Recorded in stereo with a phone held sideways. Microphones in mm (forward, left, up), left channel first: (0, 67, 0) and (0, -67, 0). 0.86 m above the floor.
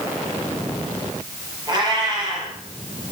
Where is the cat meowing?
30° right (ahead or behind), 5.5 m.